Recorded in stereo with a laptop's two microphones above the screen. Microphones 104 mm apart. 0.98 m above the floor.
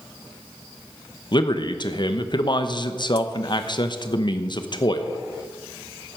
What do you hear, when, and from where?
1.3 s a man speaking: 45° left (ahead or behind), 0.9 m